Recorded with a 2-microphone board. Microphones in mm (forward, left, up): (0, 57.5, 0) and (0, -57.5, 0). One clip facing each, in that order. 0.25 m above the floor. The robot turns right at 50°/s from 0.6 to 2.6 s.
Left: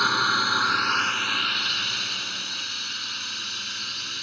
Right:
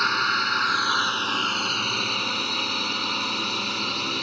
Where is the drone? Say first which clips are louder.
Left 1 dB; 175° left; by 4.2 s 85° right.